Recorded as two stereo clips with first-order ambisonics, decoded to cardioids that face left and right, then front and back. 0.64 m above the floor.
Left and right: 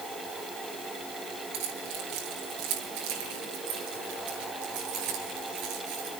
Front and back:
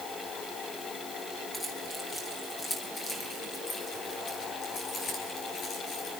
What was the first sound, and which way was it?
Keys jangling, 80° right.